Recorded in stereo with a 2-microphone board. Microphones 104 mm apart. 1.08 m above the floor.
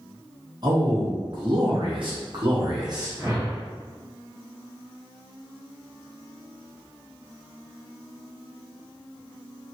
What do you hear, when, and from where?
0.6 s a man speaking: 45° right (ahead or behind), 1.9 m; by 3.1 s 35° right (ahead or behind), 1.0 m
3.2 s a whoosh: 40° right (ahead or behind), 1.8 m